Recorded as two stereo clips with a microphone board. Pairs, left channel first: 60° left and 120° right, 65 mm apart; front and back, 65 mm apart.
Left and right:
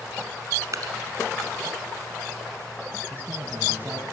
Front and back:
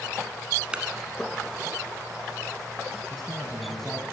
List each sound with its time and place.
0.7 s dripping: 110° right, 1.0 m
3.1 s a man speaking: 85° right, 1.3 m